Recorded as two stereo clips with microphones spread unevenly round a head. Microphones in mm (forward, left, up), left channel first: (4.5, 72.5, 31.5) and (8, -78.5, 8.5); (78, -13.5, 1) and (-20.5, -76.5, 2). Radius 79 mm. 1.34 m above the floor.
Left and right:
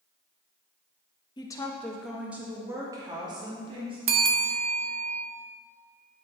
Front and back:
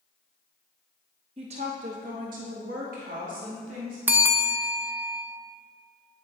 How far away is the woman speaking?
About 1.3 m.